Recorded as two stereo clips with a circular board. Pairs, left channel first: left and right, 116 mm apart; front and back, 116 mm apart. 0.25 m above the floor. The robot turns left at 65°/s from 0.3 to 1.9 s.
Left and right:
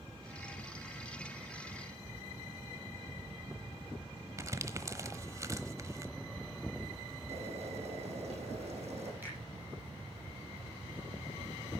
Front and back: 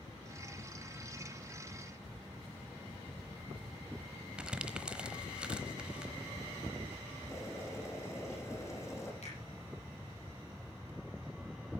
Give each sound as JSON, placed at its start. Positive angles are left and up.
{"t": 4.4, "sound": "crumpling", "azimuth_deg": -110, "distance_m": 1.0}
{"t": 7.3, "sound": "boiling", "azimuth_deg": -65, "distance_m": 6.5}
{"t": 9.2, "sound": "a finger snap", "azimuth_deg": -15, "distance_m": 9.5}